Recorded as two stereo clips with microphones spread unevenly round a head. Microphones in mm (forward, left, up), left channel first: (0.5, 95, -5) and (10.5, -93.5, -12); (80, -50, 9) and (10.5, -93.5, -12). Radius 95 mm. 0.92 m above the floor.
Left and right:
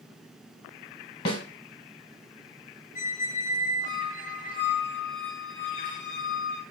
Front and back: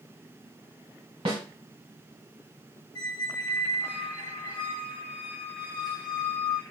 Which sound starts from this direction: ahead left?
A squeak, at 3.0 s.